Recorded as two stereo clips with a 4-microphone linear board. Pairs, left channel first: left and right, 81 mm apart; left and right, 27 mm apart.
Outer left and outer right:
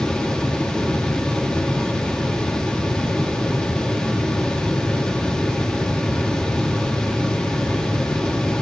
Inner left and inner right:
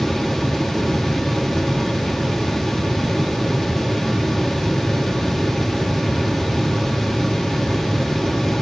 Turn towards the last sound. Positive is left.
No sound to turn to.